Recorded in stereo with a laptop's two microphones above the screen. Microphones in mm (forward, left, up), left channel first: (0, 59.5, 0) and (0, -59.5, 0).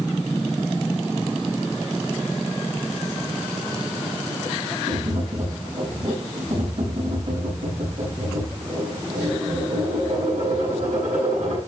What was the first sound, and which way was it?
Tapping, 75° right (ahead or behind).